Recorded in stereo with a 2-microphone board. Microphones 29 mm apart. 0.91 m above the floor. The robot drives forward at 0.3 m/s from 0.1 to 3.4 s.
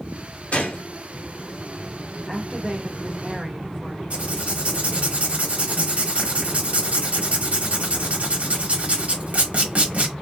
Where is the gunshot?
55° left (ahead or behind), 0.7 m; by 0.8 s 60° left (ahead or behind), 0.7 m.